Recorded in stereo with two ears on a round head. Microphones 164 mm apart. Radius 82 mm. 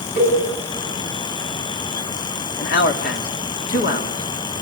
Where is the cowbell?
50° left (ahead or behind), 8.5 m.